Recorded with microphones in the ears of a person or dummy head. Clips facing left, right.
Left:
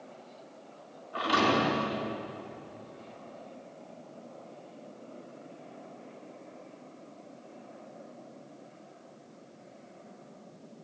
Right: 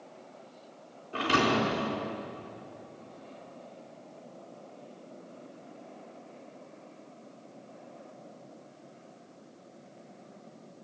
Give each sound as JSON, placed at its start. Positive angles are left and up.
{"t": 1.1, "sound": "a thud", "side_deg": -35, "distance_m": 4.5}